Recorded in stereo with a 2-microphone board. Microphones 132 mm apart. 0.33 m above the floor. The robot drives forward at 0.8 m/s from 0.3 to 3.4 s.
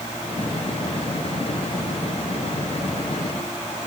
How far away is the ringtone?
No ringtone in this recording.